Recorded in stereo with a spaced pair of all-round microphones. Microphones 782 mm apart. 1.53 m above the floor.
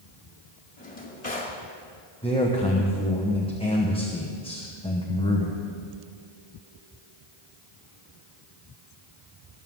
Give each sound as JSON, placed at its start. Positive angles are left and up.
{"t": 0.8, "sound": "a drawer", "side_deg": 50, "distance_m": 2.0}
{"t": 2.2, "sound": "a man speaking", "side_deg": 5, "distance_m": 1.1}